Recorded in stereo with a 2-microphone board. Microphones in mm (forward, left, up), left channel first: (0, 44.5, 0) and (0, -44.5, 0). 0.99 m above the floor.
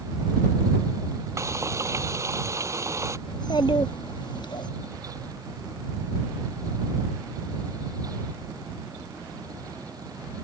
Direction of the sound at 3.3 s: 55° left (ahead or behind).